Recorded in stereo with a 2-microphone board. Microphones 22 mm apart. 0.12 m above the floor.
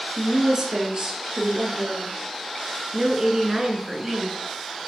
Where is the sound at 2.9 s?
25° right (ahead or behind), 1.2 m.